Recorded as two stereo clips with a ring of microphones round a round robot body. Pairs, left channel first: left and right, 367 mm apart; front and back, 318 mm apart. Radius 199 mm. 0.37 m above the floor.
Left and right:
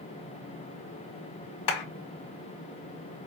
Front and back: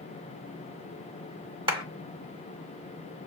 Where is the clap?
105° left, 2 m.